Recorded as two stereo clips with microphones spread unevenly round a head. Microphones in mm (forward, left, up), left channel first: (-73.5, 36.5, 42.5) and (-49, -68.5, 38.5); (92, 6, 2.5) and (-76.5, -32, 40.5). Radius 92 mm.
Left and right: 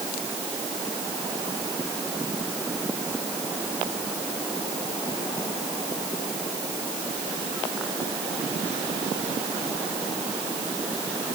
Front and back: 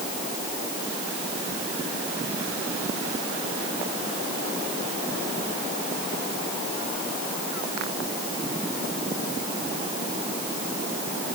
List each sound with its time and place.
Only background noise.